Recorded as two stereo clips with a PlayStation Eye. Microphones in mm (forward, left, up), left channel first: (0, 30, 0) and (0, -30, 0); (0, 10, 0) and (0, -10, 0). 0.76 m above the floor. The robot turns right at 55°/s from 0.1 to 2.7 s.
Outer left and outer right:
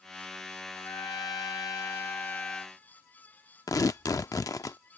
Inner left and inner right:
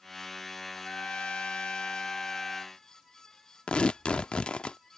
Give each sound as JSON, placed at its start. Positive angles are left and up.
{"t": 0.8, "sound": "a trumpet", "azimuth_deg": 60}
{"t": 3.7, "sound": "tearing paper", "side_deg": 80}